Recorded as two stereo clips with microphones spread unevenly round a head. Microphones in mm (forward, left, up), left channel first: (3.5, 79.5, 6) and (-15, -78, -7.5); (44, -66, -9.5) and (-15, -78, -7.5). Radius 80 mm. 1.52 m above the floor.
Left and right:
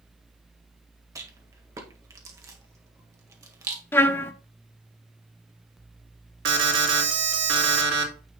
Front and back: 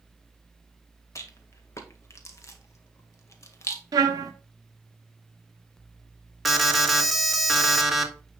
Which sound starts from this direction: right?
An alarm, at 6.5 s.